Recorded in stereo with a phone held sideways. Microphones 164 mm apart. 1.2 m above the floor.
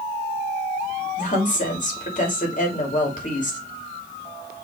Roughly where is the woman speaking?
Left.